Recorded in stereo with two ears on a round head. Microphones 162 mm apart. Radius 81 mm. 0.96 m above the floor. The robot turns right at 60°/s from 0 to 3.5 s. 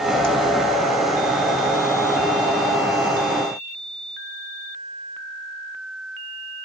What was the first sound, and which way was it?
Only background noise.